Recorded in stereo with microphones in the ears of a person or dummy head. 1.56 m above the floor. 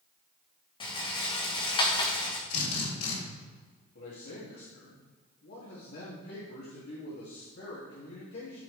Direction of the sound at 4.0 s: 55° left (ahead or behind).